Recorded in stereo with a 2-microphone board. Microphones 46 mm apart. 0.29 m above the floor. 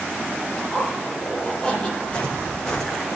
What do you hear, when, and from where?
0.6 s a zipper: 20° left (ahead or behind), 9 m
2.0 s footsteps: 25° left (ahead or behind), 5.5 m; by 3.1 s 10° left (ahead or behind), 4.5 m